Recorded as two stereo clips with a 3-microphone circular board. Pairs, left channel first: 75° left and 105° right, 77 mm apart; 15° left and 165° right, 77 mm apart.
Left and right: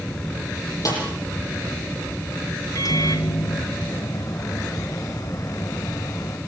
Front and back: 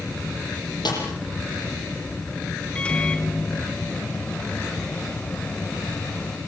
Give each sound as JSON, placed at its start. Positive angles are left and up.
{"t": 0.8, "sound": "a snare drum", "azimuth_deg": 35, "distance_m": 9.0}
{"t": 2.8, "sound": "a microwave", "azimuth_deg": 85, "distance_m": 1.2}